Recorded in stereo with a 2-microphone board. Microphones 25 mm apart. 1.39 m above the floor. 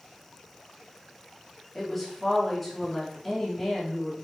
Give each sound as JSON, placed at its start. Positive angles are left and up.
{"t": 1.8, "sound": "a woman speaking", "side_deg": 10, "distance_m": 2.5}